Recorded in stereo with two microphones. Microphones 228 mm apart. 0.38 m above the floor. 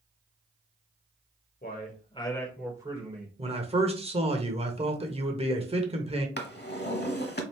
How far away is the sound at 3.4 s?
About 0.9 m.